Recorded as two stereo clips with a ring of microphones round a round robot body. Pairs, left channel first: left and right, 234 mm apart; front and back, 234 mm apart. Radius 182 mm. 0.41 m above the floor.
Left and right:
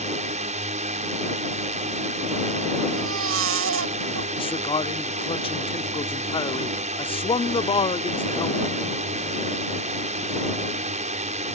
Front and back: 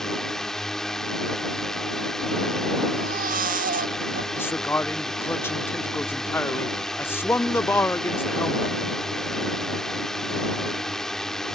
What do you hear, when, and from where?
0.0 s a drone: 85° right
3.0 s a baby crying: 120° right
4.4 s a man speaking: 70° left